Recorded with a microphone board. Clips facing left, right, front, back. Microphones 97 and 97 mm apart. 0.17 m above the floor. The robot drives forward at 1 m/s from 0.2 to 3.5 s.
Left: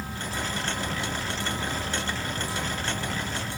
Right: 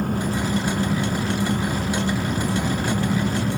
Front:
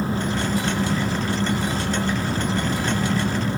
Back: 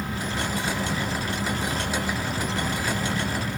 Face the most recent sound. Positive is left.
turn(degrees=-60)